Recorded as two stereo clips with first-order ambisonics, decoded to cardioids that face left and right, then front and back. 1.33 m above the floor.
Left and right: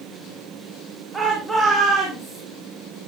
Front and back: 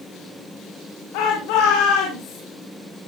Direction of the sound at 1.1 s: 10° right.